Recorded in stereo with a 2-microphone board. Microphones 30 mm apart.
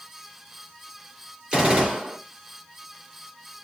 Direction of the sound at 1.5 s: 35° right (ahead or behind).